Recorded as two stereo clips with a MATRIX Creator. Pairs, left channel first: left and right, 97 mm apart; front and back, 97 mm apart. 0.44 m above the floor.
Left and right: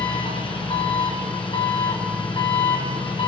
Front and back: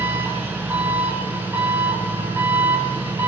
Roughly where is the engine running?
Behind left.